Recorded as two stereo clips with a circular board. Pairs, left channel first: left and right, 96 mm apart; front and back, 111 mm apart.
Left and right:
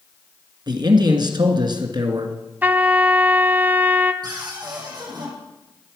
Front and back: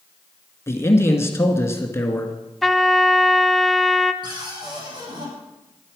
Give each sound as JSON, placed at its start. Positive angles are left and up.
{"t": 0.7, "sound": "a man speaking", "azimuth_deg": -60, "distance_m": 2.0}
{"t": 2.6, "sound": "a trumpet", "azimuth_deg": -85, "distance_m": 0.7}
{"t": 4.2, "sound": "a cupboard door", "azimuth_deg": -135, "distance_m": 6.0}